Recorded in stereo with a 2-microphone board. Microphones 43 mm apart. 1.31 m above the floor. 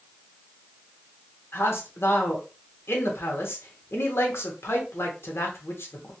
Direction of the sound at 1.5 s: 70° left (ahead or behind).